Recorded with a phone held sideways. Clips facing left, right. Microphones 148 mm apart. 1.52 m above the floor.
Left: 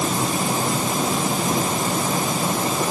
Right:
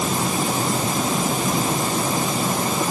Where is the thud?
No thud in this recording.